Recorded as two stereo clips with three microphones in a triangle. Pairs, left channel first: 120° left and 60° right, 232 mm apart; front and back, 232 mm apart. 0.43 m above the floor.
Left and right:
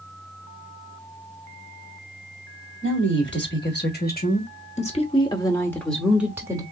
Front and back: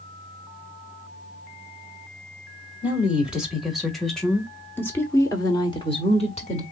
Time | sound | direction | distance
2.8 | a woman speaking | 95° left | 2 m